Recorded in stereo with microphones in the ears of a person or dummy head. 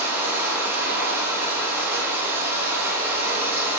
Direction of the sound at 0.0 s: 15° right (ahead or behind).